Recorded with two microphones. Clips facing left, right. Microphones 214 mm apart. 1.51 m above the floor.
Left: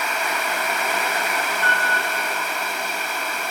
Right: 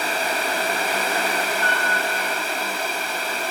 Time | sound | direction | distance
1.6 | a piano | 50° right (ahead or behind) | 5 m